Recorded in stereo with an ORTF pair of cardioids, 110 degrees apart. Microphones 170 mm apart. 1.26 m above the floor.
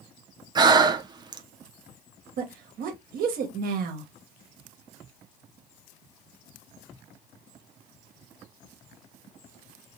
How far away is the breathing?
About 0.5 m.